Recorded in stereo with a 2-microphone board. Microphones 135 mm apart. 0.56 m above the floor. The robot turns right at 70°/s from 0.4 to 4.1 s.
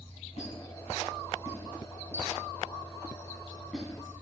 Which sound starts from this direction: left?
A squeak, at 0.4 s.